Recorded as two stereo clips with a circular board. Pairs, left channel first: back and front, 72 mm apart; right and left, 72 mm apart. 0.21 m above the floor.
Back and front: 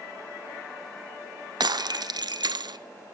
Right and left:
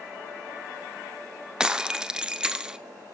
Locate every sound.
1.6 s breaking glass: 10° left, 0.9 m